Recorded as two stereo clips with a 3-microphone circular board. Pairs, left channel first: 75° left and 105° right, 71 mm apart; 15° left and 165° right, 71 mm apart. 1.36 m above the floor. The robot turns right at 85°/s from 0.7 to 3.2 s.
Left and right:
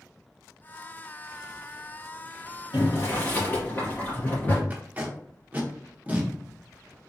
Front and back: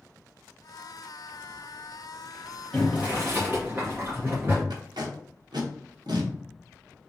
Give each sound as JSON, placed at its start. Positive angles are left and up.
{"t": 2.7, "sound": "boiling", "azimuth_deg": 95, "distance_m": 2.0}
{"t": 4.7, "sound": "tape being pulled", "azimuth_deg": -175, "distance_m": 0.9}